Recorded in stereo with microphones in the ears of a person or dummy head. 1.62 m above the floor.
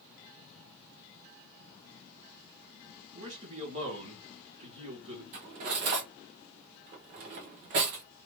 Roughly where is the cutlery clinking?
Right.